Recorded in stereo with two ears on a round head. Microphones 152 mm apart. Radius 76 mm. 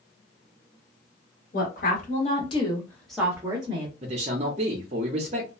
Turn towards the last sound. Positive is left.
turn(degrees=-35)  # may be behind; listen again after turning